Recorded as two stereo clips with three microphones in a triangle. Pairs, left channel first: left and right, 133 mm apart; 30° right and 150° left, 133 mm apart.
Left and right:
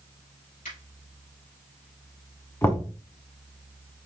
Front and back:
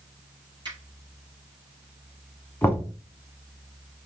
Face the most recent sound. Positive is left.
turn(degrees=30)